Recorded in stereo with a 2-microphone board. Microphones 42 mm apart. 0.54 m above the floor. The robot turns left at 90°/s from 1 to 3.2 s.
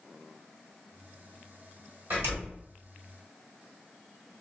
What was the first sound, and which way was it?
A door slam, 55° right (ahead or behind).